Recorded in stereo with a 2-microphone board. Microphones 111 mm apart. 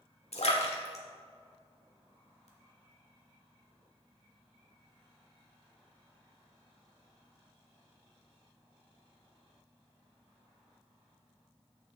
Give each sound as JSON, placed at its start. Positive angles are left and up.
{"t": 0.3, "sound": "a splash", "side_deg": 70, "distance_m": 1.4}